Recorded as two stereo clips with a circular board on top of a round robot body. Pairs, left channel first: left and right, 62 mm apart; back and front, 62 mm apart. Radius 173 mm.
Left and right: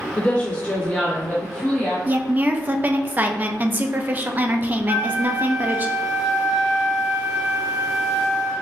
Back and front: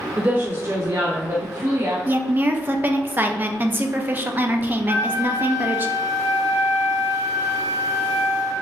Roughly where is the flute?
Ahead right.